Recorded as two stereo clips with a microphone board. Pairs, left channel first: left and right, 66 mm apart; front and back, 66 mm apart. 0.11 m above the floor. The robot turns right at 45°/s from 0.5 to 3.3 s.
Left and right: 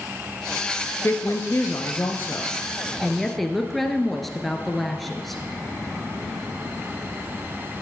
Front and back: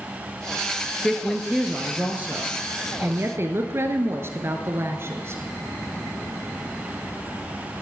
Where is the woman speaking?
75° left, 1.3 m; by 5.4 s 175° left, 1.3 m.